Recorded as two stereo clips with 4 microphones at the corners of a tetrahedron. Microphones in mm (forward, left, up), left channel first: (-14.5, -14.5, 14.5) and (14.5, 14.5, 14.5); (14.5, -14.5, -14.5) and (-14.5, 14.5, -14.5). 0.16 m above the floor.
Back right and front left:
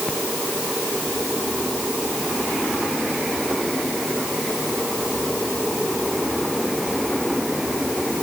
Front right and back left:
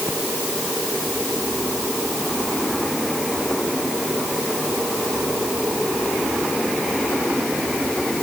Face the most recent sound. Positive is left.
No sound to turn to.